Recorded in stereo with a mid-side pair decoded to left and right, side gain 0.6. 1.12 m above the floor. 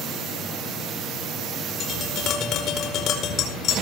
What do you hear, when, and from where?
1.8 s tapping: 55° left, 4.5 m